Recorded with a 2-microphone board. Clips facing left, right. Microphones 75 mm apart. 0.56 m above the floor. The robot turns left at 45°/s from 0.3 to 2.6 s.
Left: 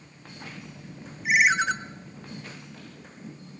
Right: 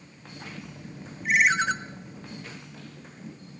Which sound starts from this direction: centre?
A ringtone, at 1.2 s.